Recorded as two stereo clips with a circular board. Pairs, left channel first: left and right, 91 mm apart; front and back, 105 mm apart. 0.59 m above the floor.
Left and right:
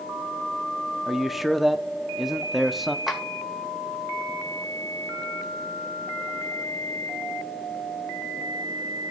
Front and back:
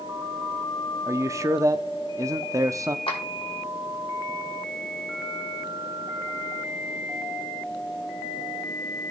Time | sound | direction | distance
1.1 | a man speaking | straight behind | 0.6 m
3.1 | a clap | 5° right | 2 m